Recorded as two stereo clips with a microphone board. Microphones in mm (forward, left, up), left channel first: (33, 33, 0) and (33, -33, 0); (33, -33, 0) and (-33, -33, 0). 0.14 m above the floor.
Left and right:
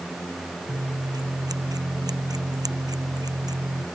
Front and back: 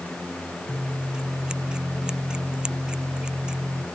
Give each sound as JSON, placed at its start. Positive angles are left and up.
{"t": 0.7, "sound": "scissors", "azimuth_deg": -105}